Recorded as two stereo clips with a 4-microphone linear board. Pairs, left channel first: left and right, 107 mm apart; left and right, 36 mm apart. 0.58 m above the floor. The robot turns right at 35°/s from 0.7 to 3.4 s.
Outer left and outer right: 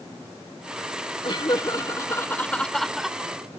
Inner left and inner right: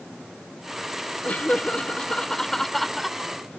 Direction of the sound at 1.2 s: 120° left.